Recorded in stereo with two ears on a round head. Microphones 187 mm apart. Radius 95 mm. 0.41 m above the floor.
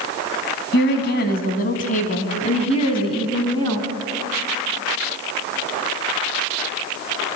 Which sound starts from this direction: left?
A woman speaking, at 0.7 s.